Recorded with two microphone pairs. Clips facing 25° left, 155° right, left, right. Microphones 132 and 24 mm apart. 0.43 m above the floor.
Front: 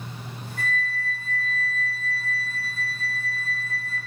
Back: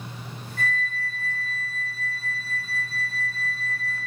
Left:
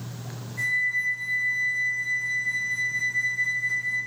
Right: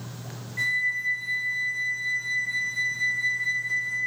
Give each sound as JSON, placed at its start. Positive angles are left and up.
{"t": 0.6, "sound": "a flute", "azimuth_deg": -50, "distance_m": 1.9}